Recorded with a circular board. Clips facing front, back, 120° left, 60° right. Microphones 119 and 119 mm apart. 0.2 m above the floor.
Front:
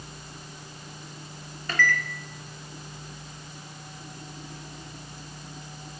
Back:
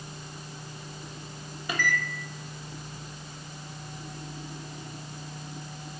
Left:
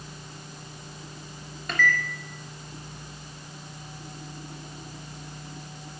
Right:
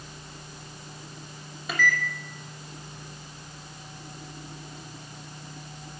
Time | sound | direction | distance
1.7 | a microwave | 130° right | 0.8 m